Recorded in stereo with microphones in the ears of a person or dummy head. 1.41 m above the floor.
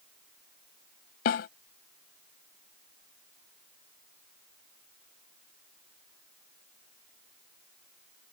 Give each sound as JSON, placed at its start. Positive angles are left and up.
{"t": 1.2, "sound": "a snare drum", "side_deg": 50}